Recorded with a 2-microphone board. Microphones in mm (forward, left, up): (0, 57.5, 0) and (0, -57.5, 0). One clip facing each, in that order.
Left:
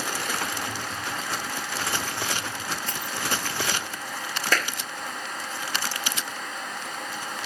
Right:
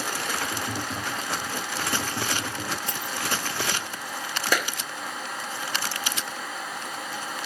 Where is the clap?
10° right (ahead or behind).